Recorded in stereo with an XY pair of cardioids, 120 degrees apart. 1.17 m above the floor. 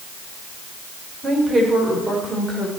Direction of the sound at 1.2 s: 15° right.